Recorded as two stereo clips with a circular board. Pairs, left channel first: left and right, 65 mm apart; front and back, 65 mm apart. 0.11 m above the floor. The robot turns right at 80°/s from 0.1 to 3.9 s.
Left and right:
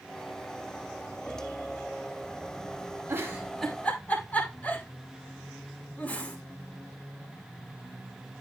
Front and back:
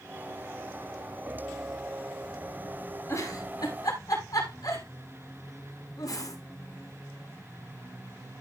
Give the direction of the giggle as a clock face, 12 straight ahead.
1 o'clock.